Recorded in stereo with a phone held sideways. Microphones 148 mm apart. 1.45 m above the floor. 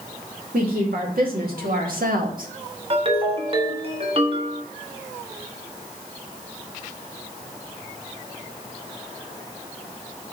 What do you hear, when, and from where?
0.5 s a woman speaking: 80° right, 2.5 m; by 2.5 s 70° right (ahead or behind), 1.4 m
2.9 s a ringtone: 40° right (ahead or behind), 1.3 m